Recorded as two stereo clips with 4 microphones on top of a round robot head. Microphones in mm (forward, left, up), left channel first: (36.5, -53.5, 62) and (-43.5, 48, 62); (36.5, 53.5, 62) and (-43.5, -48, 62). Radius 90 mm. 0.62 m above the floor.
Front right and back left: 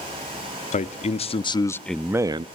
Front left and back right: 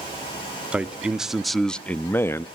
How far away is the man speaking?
About 1.2 m.